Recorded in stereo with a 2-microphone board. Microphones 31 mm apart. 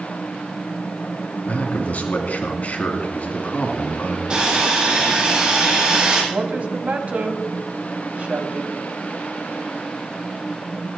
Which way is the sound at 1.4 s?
65° left (ahead or behind).